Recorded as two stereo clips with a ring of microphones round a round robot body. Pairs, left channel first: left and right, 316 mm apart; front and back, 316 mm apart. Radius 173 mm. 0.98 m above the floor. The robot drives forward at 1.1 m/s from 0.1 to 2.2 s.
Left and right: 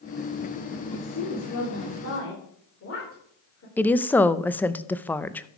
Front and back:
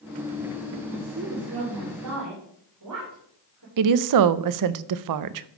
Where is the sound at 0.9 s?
115° left, 2.5 m; by 3.7 s 140° left, 3.5 m.